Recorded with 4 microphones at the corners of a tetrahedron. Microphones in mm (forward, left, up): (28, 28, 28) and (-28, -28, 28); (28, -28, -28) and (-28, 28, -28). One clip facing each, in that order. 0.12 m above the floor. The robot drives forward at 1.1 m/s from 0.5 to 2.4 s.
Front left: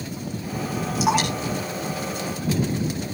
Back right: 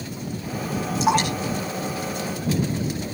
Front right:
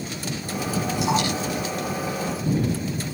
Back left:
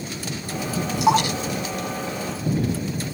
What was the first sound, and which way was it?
Dripping, 130° left.